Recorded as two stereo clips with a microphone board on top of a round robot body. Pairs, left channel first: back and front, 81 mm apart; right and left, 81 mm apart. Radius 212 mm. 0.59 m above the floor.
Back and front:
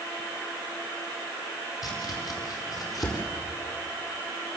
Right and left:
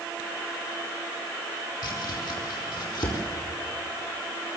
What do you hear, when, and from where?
1.8 s chopping: 135° right, 4.5 m